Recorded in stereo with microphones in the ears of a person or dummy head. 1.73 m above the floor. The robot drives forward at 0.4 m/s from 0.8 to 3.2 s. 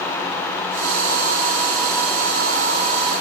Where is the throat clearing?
I don't hear throat clearing.